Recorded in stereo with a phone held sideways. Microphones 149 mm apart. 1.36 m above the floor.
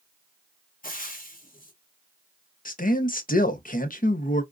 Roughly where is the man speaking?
Left.